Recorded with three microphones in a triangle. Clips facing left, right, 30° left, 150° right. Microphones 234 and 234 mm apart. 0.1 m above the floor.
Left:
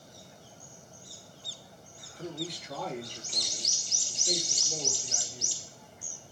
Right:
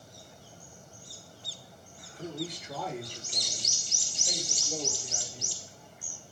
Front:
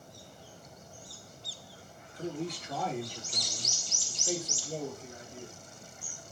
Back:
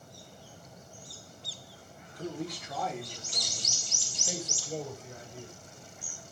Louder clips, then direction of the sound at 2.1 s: Right 1 dB, front 1 dB; 5° right.